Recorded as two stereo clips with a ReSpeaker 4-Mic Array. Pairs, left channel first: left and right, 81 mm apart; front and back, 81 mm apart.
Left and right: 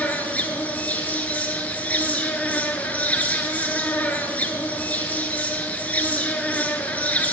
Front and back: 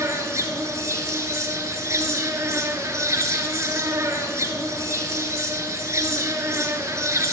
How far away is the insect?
About 0.8 m.